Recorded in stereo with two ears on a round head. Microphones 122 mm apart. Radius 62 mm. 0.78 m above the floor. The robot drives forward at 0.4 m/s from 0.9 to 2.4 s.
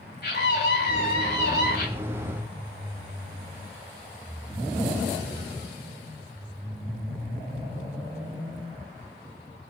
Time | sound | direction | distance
0.2 | a scream | 80° left | 5 m